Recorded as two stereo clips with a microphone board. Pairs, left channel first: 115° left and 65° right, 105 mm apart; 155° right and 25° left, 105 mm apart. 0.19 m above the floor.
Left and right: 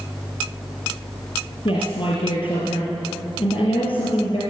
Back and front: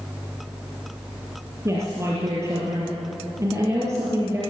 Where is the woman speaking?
80° left, 5 m.